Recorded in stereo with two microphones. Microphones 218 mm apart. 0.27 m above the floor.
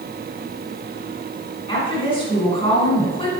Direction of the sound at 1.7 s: 25° left (ahead or behind).